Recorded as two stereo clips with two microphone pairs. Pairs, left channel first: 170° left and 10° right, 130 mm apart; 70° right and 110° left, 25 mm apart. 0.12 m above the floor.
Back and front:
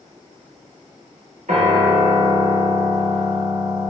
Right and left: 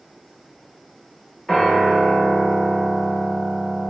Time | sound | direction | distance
1.5 | a piano | 15° left | 1.4 m